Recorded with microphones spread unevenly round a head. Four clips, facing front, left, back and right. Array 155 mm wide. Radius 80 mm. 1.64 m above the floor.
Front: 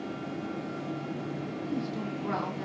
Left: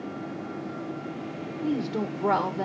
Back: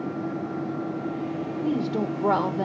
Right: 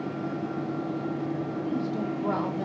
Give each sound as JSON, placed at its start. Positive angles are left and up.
{"t": 1.6, "sound": "a woman speaking", "azimuth_deg": 170, "distance_m": 2.0}